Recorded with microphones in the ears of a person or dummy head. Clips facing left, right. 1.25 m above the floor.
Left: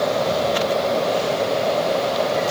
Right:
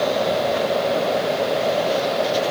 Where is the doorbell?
No doorbell in this recording.